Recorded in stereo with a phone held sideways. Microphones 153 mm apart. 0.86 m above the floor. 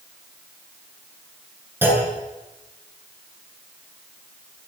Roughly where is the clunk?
Centre.